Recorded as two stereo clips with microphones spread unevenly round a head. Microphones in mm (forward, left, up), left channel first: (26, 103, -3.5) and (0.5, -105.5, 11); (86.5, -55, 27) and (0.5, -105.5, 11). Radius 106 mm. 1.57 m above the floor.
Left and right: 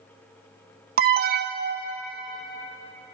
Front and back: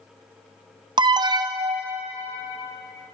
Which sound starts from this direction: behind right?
An alarm, at 1.0 s.